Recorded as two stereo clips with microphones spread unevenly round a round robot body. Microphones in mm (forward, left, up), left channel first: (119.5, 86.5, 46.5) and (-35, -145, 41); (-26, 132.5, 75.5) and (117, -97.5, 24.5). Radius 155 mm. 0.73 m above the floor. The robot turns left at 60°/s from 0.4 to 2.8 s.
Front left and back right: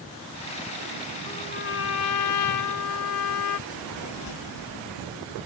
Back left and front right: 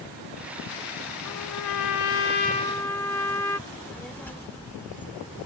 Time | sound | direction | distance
1.2 | a trumpet | 135° left | ?
3.7 | a child speaking | 35° left | ?